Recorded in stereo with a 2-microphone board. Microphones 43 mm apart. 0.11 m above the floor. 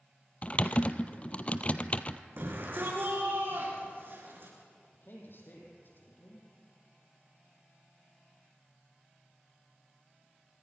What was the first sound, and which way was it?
Typing on a keyboard, 30° left (ahead or behind).